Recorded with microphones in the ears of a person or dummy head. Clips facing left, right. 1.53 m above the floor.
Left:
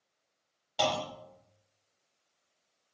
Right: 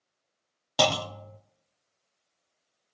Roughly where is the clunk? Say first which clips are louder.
Right 5 dB; right.